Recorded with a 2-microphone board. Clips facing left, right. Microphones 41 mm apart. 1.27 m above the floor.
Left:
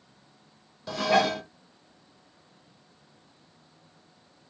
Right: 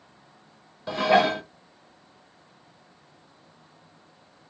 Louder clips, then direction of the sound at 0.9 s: Right 3 dB; 25° right (ahead or behind).